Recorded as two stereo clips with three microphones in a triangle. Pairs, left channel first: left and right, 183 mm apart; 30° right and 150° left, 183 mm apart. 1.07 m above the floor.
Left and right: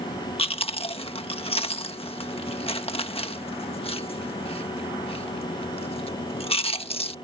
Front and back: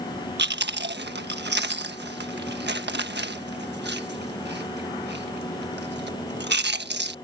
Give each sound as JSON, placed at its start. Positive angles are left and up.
{"t": 0.4, "sound": "chewing", "azimuth_deg": 145}